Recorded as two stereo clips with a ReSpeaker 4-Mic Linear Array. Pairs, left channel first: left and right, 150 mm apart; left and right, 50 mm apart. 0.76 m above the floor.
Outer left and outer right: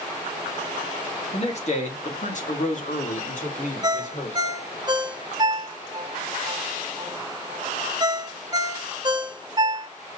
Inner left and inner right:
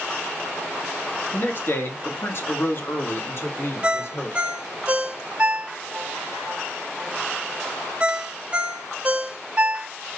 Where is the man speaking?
45° left (ahead or behind), 1.5 m; by 4.6 s 55° left (ahead or behind), 3 m.